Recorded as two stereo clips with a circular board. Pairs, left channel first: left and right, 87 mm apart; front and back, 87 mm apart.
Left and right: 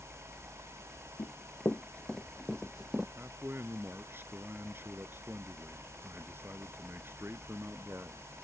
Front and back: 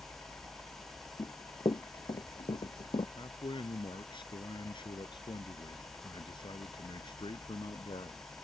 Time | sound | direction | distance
0.0 | a helicopter | 10° right | ?
1.2 | running footsteps | 40° left | ?
3.2 | a man speaking | 25° right | ?